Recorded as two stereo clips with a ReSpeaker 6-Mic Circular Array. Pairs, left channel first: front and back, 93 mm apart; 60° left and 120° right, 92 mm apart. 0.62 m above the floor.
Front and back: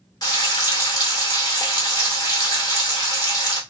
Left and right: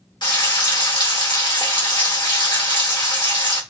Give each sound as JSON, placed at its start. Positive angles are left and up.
{"t": 0.2, "sound": "frying", "azimuth_deg": 35, "distance_m": 1.8}